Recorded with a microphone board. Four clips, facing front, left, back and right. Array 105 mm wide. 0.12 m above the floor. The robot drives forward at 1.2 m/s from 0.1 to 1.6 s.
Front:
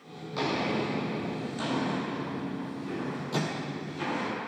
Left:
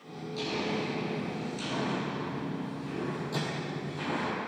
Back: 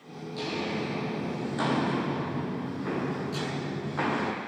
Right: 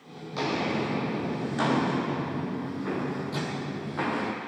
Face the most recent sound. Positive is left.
turn(degrees=5)